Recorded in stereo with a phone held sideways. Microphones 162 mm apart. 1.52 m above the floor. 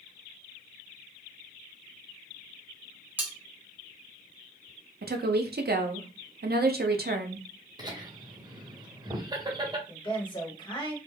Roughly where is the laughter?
Right.